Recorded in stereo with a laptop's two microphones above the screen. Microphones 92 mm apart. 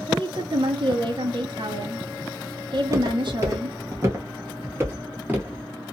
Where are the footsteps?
35° right (ahead or behind), 1.5 m; by 5.7 s 15° right (ahead or behind), 1.3 m.